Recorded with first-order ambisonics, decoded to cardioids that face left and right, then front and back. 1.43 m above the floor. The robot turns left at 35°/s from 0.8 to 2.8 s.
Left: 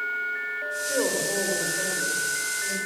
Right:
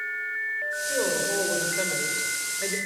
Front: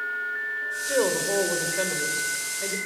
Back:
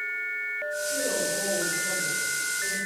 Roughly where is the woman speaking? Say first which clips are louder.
Left 1 dB, front 7 dB; ahead.